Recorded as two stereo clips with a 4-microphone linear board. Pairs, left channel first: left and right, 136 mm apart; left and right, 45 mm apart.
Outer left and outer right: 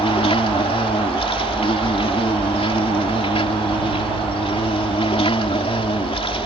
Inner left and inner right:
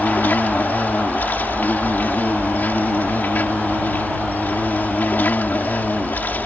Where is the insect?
45° left (ahead or behind).